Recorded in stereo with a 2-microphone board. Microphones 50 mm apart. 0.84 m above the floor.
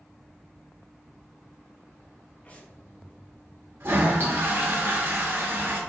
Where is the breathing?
30° left (ahead or behind), 1.0 m.